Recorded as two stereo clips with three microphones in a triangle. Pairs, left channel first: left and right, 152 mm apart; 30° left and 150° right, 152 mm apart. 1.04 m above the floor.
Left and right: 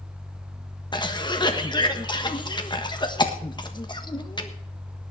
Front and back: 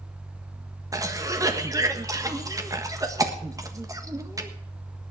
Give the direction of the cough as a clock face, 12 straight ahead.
7 o'clock.